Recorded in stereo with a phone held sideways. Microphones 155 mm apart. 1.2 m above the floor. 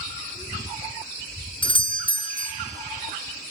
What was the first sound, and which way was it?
A doorbell, 30° left (ahead or behind).